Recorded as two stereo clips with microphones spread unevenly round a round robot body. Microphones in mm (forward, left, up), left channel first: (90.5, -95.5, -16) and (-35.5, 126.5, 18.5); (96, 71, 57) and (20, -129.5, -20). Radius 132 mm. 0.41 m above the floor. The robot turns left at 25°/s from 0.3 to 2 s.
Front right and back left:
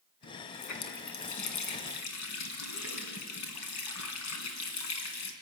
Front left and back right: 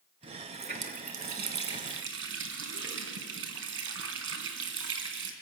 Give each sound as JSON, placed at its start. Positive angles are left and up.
{"t": 0.2, "sound": "a running tap", "azimuth_deg": -50, "distance_m": 3.0}